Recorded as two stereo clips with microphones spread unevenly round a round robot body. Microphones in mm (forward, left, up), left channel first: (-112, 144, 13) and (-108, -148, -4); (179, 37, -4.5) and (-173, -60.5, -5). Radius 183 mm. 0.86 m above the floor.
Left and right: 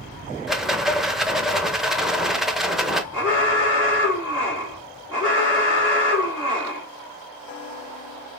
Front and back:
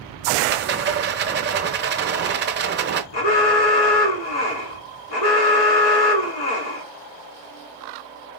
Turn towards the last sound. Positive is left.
turn(degrees=-15)